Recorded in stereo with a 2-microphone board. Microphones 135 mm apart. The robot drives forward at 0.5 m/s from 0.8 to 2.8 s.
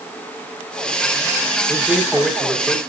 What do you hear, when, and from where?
1.7 s a man speaking: centre (ahead or behind), 5 m